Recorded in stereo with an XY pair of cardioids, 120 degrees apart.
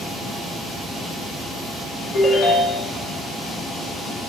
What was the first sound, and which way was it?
A ringtone, 45° left.